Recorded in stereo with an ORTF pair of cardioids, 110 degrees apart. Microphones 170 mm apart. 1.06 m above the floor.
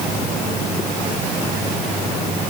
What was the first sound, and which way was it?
Only background noise.